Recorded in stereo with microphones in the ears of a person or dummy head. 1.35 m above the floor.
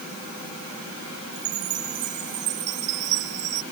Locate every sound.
1.3 s a chime: 40° right (ahead or behind)